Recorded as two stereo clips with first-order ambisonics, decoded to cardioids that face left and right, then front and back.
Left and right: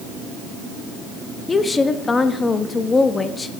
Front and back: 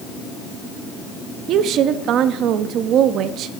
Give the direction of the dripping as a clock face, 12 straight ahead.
No dripping in this recording.